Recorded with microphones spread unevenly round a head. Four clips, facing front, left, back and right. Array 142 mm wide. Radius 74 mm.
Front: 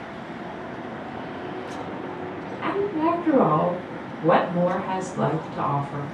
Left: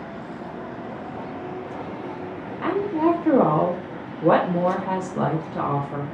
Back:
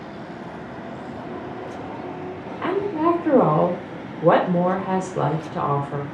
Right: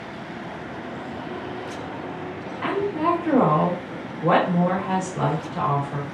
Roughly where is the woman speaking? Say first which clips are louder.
Left 2 dB, back 2 dB; behind.